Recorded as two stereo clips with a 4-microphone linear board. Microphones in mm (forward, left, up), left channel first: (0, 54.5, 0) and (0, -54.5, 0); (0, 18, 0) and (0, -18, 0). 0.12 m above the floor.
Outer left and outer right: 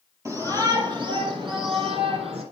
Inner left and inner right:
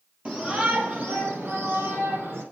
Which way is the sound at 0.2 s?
30° right (ahead or behind).